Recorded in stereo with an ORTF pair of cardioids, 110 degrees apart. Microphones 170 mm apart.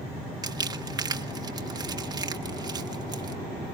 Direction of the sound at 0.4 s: 25° right.